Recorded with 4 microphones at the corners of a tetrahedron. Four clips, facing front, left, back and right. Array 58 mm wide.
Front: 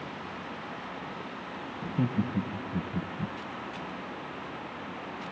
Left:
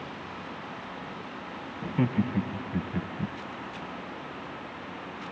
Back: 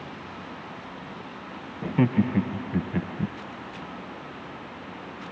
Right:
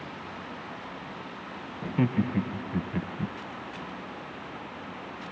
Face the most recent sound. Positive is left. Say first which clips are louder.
# right 1 dB, back 7 dB
turn(degrees=180)